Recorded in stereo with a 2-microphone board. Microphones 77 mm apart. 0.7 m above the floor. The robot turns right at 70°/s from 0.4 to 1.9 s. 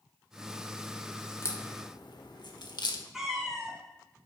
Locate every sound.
1.4 s a crack: 30° left (ahead or behind), 1.3 m; by 3.0 s 65° left (ahead or behind), 1.3 m
3.1 s a cat meowing: 5° right (ahead or behind), 3 m